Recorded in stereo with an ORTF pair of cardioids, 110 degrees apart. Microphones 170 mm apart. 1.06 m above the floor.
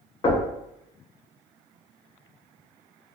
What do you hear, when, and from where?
0.2 s knocking: 30° left, 1.0 m